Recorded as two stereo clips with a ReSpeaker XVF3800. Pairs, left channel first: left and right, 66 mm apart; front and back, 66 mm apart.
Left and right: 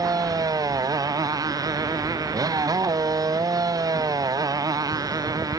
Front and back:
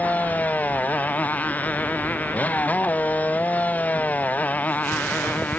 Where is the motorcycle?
70° right.